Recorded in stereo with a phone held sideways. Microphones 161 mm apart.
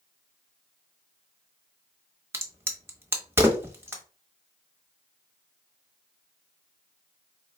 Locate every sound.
2.3 s a crack: 15° right (ahead or behind), 1.0 m